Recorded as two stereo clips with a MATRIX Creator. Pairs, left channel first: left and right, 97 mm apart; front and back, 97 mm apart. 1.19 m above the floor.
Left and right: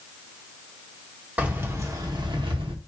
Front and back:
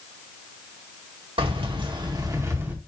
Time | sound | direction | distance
1.4 | keys jangling | 165° right | 2.0 m